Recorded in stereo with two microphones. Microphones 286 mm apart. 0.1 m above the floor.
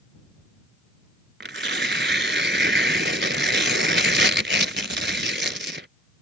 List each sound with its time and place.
1.4 s tearing paper: 40° right (ahead or behind)